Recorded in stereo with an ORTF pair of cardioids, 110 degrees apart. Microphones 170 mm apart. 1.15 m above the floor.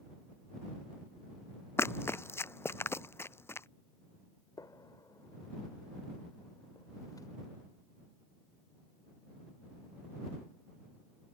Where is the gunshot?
20° left.